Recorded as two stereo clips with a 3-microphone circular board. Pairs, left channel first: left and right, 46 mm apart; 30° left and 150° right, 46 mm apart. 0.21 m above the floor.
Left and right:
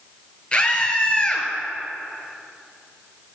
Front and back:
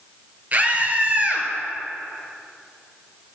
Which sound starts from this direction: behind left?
A scream, at 0.5 s.